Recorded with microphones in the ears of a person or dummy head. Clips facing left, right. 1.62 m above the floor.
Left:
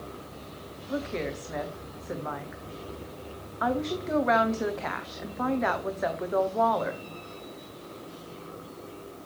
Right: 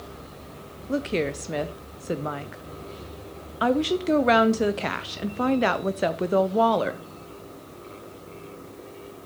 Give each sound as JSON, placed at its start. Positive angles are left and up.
{"t": 0.9, "sound": "a woman speaking", "side_deg": -40, "distance_m": 0.6}